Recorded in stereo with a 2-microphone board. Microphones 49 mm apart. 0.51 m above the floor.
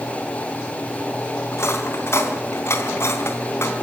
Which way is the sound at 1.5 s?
60° left (ahead or behind).